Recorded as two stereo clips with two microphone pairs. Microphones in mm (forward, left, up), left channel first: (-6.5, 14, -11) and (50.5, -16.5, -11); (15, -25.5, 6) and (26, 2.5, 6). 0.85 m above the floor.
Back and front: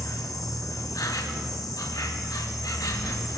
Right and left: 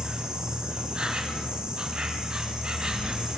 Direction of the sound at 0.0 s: 135° left.